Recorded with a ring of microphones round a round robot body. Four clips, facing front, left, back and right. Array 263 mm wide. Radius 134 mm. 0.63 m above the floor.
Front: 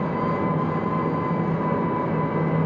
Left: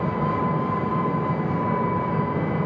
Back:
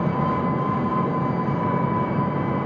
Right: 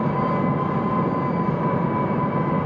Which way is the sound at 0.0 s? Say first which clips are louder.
Right 2 dB, back 1 dB; 85° right.